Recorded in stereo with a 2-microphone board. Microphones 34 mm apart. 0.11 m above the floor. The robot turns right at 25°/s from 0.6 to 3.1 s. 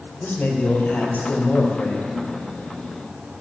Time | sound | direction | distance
0.2 | a man speaking | 105° left | 3 m